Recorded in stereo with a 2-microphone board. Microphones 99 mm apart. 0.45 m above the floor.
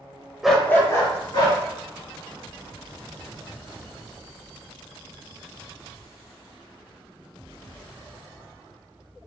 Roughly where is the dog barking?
Centre.